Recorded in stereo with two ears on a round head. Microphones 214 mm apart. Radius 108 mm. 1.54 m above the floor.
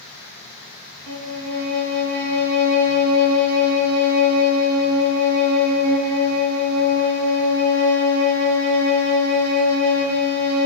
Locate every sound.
1.1 s a violin: 65° right (ahead or behind), 3.5 m